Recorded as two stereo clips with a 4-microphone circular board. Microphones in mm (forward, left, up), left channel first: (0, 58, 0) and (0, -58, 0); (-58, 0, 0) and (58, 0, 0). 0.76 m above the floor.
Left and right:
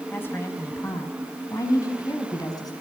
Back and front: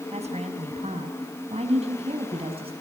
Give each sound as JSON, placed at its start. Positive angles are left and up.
{"t": 0.1, "sound": "a woman speaking", "azimuth_deg": 20, "distance_m": 5.5}